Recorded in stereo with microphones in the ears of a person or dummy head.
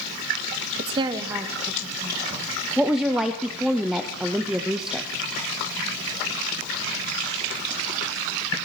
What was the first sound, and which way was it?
A woman speaking, 40° right (ahead or behind).